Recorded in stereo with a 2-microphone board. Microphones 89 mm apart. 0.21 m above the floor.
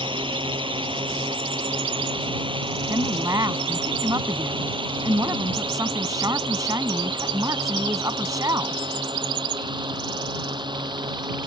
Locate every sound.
0.0 s a drone: 75° right (ahead or behind); by 11.5 s 60° right (ahead or behind)
2.9 s a woman speaking: 45° right (ahead or behind)